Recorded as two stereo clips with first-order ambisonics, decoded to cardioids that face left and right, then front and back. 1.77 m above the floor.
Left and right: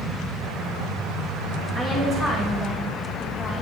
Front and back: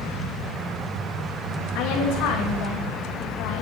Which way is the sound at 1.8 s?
15° left.